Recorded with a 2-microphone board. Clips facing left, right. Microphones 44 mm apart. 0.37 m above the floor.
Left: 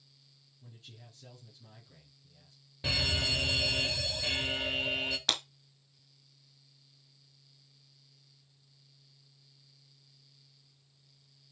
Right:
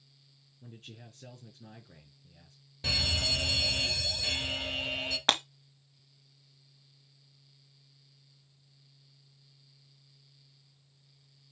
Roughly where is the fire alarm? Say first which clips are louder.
Even; centre.